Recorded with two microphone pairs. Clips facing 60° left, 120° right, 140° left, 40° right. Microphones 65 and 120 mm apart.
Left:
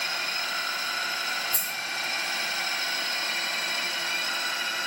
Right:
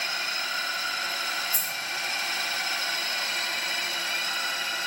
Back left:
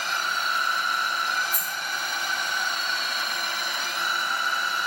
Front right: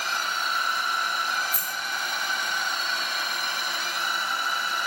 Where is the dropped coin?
40° left, 1.5 m.